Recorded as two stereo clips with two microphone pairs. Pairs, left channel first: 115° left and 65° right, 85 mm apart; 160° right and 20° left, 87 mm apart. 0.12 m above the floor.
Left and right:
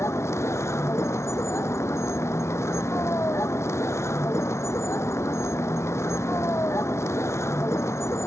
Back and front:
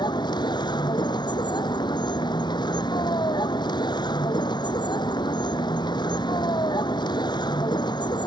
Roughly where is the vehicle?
Behind.